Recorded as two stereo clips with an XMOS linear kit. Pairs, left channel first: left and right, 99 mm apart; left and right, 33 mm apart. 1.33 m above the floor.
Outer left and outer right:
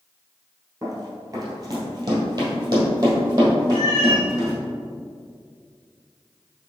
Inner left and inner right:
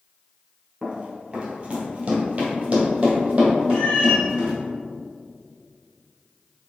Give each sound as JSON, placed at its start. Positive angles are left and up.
{"t": 0.8, "sound": "running footsteps", "side_deg": -30, "distance_m": 1.5}
{"t": 3.7, "sound": "a cat meowing", "side_deg": 50, "distance_m": 1.5}